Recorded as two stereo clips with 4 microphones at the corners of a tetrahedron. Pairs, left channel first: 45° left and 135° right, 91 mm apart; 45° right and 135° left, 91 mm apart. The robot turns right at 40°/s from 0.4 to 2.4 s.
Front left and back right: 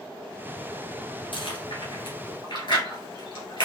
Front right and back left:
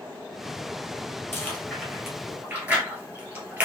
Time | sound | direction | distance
1.3 | chewing | 20° left | 2.0 m